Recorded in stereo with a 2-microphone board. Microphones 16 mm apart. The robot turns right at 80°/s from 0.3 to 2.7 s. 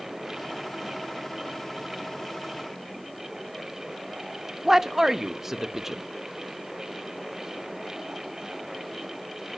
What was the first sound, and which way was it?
A man speaking, 25° right (ahead or behind).